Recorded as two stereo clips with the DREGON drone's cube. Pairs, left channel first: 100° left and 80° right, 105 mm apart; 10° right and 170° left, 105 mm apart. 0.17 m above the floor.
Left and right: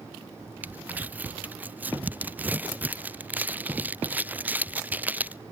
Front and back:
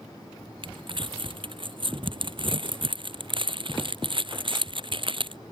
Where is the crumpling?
155° right.